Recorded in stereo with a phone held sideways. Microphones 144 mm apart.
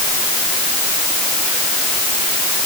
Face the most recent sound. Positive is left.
No sound to turn to.